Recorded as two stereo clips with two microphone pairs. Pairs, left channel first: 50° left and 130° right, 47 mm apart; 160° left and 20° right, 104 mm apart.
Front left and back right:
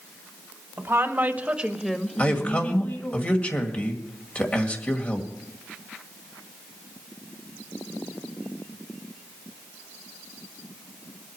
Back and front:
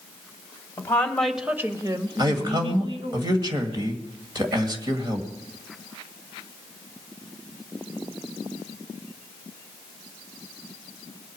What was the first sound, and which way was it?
A woman speaking, 135° right.